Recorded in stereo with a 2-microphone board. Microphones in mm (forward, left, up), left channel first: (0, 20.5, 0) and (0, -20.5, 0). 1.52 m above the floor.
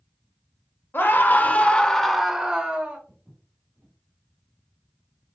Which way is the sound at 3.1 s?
30° right (ahead or behind).